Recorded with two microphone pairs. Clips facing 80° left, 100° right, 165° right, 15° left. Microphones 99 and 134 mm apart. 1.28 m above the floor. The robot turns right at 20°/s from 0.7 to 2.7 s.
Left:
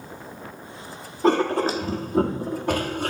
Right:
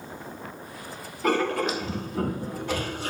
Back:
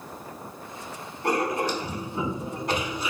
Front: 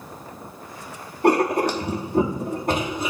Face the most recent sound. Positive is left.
turn(degrees=50)